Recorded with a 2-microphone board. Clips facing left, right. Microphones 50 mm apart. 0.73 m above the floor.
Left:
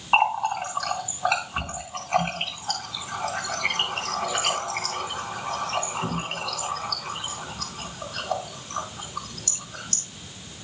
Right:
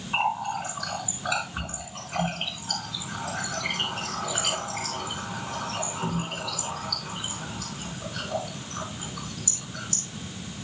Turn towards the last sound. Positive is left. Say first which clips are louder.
# left 5 dB
turn(degrees=60)  # may be behind; listen again after turning